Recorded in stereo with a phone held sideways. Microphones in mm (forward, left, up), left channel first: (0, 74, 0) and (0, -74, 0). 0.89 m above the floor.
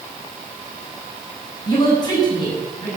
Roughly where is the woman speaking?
Left.